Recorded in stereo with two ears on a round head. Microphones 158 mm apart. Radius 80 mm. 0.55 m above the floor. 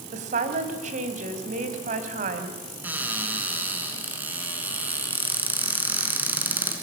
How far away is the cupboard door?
About 4 m.